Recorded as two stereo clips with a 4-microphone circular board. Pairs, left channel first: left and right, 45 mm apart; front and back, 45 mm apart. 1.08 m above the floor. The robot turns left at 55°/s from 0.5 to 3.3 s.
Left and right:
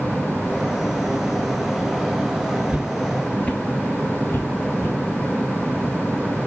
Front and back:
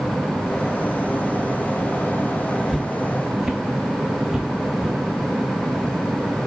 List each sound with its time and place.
2.7 s footsteps: 85° right, 1.1 m; by 5.0 s 100° left, 3 m